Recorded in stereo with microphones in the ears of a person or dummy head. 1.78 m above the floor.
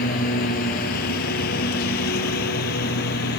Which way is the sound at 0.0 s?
45° left (ahead or behind).